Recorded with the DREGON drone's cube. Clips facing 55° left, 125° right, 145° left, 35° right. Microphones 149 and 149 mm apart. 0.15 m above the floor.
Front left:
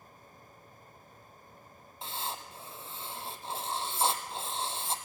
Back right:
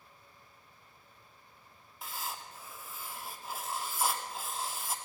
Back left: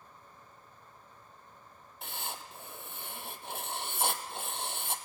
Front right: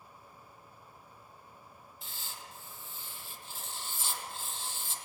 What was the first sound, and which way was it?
Writing, 120° left.